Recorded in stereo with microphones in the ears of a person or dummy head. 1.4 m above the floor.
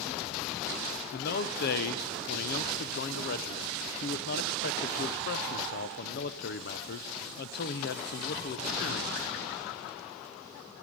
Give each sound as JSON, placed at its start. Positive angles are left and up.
{"t": 1.1, "sound": "a man speaking", "side_deg": 65, "distance_m": 0.8}